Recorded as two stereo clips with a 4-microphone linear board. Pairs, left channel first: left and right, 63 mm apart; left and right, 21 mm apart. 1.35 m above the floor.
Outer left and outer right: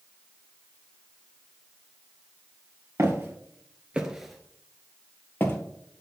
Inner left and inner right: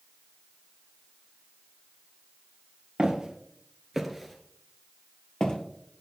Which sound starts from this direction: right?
Footsteps, at 3.0 s.